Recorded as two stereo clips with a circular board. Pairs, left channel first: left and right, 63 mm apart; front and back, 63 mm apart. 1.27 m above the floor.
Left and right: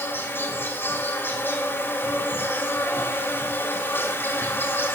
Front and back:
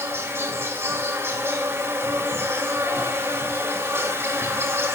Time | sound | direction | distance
0.0 | an insect | 140° left | 3 m